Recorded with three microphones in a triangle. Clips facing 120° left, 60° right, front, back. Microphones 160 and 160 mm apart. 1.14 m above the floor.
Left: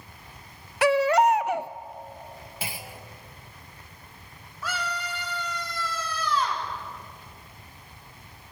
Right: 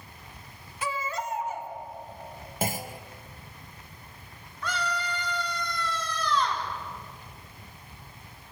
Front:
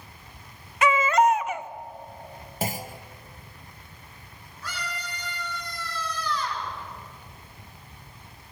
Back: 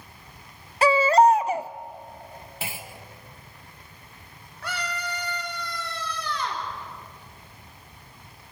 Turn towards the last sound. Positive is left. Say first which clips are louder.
# right 1 dB, back 5 dB
turn(degrees=-155)